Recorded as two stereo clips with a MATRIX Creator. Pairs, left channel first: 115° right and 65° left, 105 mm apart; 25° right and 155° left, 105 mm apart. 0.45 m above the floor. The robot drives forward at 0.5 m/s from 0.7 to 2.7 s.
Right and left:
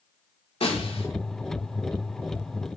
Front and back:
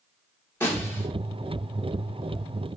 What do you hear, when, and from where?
0.6 s a snare drum: 90° right, 6 m